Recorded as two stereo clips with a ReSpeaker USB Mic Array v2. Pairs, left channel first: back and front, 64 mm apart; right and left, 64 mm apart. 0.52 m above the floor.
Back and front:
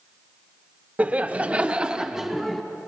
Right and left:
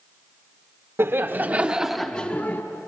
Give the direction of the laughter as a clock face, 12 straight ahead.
10 o'clock.